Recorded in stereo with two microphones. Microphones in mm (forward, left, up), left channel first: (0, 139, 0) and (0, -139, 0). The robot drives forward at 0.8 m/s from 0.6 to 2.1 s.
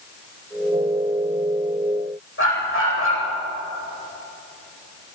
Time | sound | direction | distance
2.4 | a dog barking | 50° left (ahead or behind) | 9.5 m